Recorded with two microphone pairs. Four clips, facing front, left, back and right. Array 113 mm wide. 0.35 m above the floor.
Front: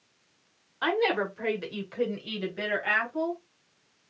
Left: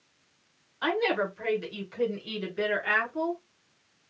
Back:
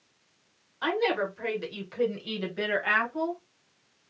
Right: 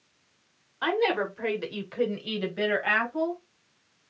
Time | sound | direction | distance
0.8 | a woman speaking | 40° right | 1.1 m